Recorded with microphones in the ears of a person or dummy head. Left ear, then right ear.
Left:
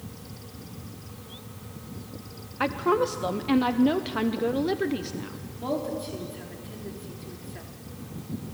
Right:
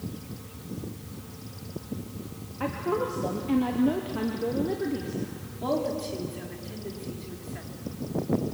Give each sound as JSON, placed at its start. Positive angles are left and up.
{"t": 2.6, "sound": "a woman speaking", "side_deg": 55, "distance_m": 0.9}
{"t": 5.6, "sound": "a woman speaking", "side_deg": 0, "distance_m": 4.0}